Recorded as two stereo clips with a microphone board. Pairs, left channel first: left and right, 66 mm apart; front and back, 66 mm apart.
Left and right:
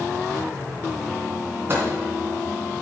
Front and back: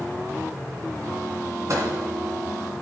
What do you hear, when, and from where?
1.7 s a microwave: 145° right, 2.5 m